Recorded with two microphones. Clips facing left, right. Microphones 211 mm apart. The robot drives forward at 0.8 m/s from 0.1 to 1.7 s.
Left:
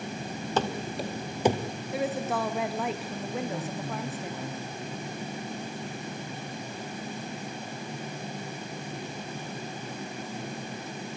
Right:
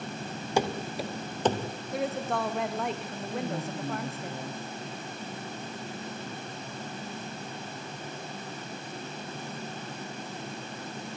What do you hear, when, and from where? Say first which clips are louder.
0.6 s running footsteps: right 1 dB; 10° right (ahead or behind), 3 m; by 1.8 s 20° left (ahead or behind), 2.5 m
1.9 s a woman speaking: left 1 dB; 5° left (ahead or behind), 1.4 m
3.3 s a woman speaking: right 1 dB; 15° right (ahead or behind), 6.5 m